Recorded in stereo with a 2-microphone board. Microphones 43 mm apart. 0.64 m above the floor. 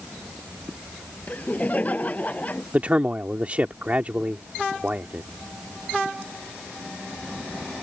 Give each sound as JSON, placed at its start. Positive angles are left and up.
{"t": 1.3, "sound": "laughter", "side_deg": 40}
{"t": 2.7, "sound": "a man speaking", "side_deg": -35}